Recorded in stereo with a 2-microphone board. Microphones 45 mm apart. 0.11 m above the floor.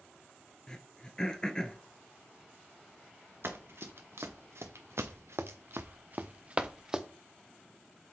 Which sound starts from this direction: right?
Running footsteps, at 3.4 s.